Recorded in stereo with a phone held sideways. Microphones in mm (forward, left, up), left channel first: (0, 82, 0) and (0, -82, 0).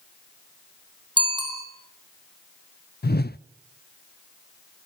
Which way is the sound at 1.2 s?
30° right (ahead or behind).